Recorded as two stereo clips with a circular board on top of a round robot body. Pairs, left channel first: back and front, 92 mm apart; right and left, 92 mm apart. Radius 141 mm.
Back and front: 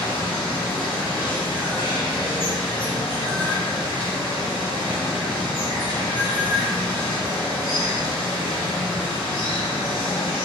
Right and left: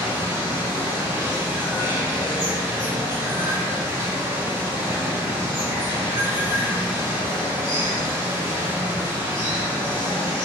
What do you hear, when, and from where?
0.0 s running water: 150° left, 1.7 m